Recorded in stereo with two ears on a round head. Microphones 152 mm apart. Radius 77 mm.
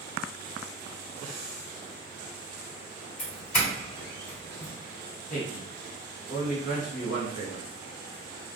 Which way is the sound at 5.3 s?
50° left (ahead or behind).